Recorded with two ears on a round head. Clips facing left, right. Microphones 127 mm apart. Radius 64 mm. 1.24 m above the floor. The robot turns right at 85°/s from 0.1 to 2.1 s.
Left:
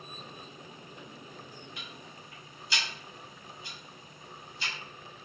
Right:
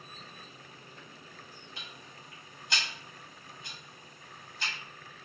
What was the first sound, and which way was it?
Ticking, 30° right (ahead or behind).